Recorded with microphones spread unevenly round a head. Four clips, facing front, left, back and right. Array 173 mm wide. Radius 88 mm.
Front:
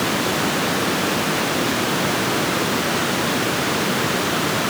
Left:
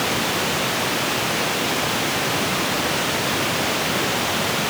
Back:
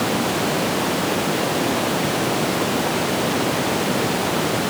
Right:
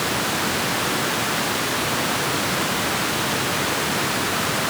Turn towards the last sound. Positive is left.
No sound to turn to.